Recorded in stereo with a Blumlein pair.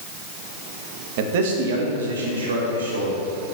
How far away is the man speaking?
About 1.1 m.